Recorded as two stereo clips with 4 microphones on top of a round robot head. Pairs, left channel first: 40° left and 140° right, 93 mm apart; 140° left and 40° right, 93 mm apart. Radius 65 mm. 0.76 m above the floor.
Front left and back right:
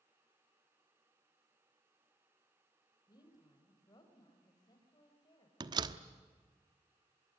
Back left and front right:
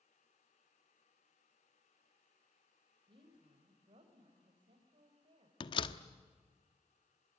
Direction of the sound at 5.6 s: 175° left.